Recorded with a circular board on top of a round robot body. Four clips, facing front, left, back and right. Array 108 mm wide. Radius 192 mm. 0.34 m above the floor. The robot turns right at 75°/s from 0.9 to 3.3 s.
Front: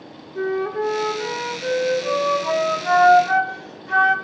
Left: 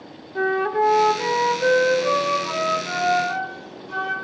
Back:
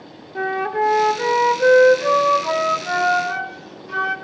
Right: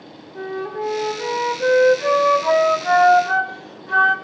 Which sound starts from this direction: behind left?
A flute, at 0.3 s.